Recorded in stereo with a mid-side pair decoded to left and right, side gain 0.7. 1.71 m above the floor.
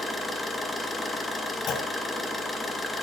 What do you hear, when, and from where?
0.0 s an engine running: 20° left, 1.9 m
1.7 s a clunk: 50° left, 1.8 m